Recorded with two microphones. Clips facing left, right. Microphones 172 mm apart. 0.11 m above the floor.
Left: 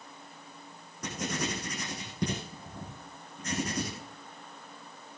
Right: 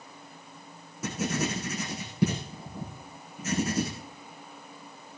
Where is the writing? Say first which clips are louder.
Right 4 dB; 10° right (ahead or behind), 5 m.